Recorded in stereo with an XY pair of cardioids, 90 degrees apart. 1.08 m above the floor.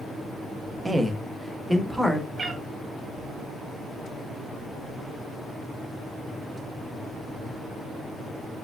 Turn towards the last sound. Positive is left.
turn(degrees=-35)